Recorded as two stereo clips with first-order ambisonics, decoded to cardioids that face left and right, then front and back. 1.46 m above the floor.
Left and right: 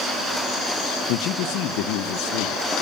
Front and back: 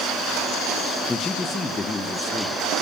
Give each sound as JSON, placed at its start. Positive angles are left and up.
{"t": 1.1, "sound": "a man speaking", "azimuth_deg": 75, "distance_m": 0.9}